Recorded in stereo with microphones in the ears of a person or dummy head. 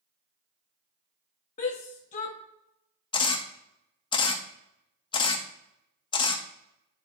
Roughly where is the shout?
Left.